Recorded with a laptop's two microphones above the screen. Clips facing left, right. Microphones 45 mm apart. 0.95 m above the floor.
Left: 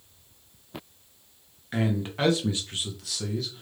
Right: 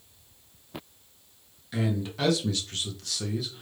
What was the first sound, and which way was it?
A man speaking, 45° left (ahead or behind).